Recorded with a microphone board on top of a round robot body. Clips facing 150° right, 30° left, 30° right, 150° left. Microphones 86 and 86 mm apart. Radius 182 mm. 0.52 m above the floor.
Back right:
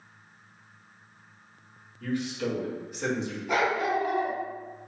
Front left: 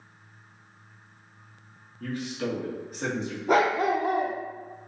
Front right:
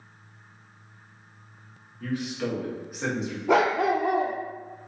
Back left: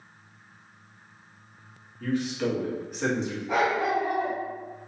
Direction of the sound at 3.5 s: 20° right.